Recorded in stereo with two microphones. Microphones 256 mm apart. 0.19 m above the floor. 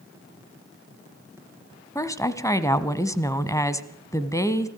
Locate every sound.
1.9 s a woman speaking: 10° left (ahead or behind), 1.2 m